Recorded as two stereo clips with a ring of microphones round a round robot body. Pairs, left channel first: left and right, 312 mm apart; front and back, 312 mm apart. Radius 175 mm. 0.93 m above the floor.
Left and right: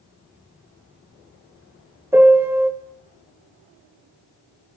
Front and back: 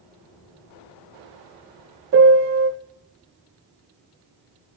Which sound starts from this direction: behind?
A piano, at 2.1 s.